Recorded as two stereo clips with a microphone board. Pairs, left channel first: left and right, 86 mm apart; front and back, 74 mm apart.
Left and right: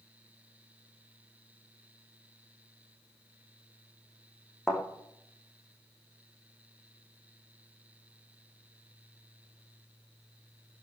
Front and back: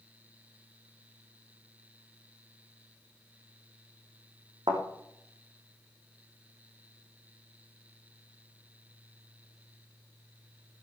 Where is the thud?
Straight behind, 4.5 m.